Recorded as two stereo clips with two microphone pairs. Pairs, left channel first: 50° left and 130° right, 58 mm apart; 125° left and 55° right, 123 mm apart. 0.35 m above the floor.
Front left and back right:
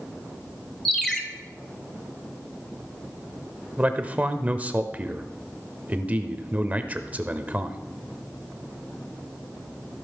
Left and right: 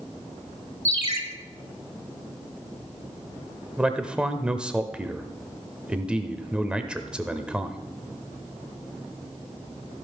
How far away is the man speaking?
About 0.8 m.